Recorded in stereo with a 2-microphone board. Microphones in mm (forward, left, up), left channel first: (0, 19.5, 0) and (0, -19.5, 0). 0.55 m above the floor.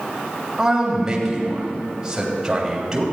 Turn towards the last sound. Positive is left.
turn(degrees=-10)  # may be behind; listen again after turning